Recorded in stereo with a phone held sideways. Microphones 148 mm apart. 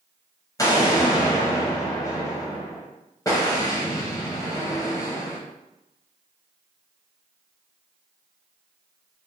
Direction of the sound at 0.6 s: 20° left (ahead or behind).